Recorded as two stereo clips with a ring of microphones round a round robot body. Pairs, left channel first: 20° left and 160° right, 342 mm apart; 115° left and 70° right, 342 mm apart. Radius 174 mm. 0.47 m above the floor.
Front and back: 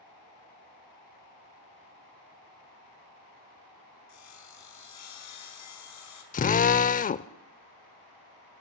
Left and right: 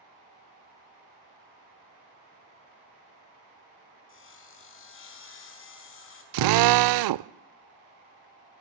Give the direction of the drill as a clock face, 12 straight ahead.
1 o'clock.